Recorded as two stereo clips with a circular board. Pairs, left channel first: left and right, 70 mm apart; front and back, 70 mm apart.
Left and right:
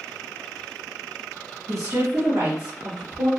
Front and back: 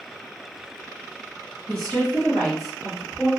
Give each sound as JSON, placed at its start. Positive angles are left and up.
{"t": 1.7, "sound": "a woman speaking", "azimuth_deg": -65, "distance_m": 1.2}